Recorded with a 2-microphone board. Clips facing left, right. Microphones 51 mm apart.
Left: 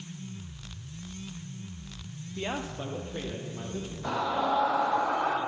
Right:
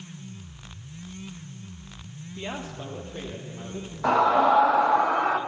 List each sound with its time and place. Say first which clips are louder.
2.4 s a man speaking: left 1 dB; 10° left (ahead or behind), 0.5 m; by 5.0 s 20° left (ahead or behind), 2.5 m
4.0 s a scream: right 9 dB; 65° right (ahead or behind), 1.0 m